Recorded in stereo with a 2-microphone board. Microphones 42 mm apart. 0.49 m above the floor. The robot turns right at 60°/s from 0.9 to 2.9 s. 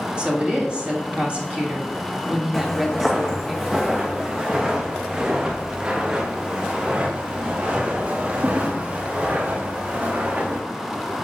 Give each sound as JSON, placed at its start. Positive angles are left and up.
{"t": 0.2, "sound": "a woman speaking", "azimuth_deg": -125, "distance_m": 1.4}
{"t": 2.5, "sound": "footsteps", "side_deg": 0, "distance_m": 1.4}